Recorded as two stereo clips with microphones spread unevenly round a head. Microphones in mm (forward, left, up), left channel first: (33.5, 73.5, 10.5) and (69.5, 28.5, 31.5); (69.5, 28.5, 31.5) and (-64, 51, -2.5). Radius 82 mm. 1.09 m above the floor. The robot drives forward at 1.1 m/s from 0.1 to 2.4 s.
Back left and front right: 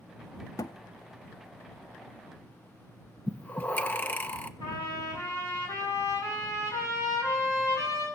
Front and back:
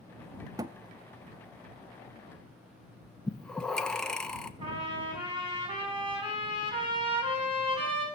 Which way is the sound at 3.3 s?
85° left.